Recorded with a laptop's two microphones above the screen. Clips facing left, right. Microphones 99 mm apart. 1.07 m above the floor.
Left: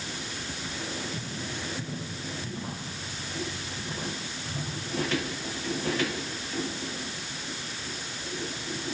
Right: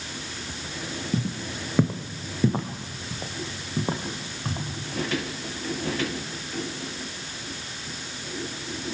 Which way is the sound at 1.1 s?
55° right (ahead or behind).